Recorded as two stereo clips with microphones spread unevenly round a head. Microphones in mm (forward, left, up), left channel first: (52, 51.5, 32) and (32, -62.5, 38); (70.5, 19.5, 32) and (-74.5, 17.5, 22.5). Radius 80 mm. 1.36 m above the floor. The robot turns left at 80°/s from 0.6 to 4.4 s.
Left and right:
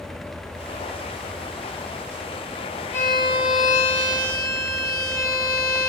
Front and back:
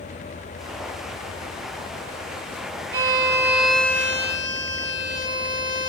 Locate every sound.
2.9 s a violin: 150° left, 1.5 m; by 5.9 s 35° left, 1.5 m